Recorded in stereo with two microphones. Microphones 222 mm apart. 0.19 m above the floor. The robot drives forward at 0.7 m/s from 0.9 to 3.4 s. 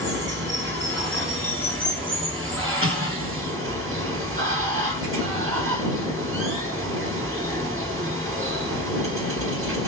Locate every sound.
0.0 s running water: 55° right (ahead or behind), 3.5 m; by 9.9 s 70° right (ahead or behind), 3 m
2.8 s an explosion: 75° right (ahead or behind), 3.5 m